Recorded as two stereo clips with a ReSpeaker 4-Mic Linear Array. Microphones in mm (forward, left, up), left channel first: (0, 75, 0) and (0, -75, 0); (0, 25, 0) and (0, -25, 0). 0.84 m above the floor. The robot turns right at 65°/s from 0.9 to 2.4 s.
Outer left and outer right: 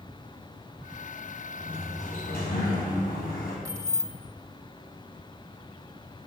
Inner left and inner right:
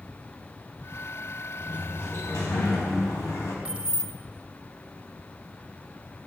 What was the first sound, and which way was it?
A sliding door, 30° left.